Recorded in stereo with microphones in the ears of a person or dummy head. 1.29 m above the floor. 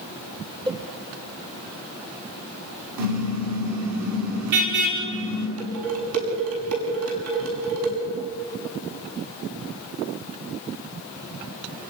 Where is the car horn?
75° right (ahead or behind), 6 m.